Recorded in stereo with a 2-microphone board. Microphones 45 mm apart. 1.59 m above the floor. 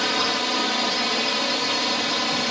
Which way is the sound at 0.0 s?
Centre (ahead or behind).